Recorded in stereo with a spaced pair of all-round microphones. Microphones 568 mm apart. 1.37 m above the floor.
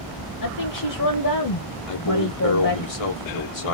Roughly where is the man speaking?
Left.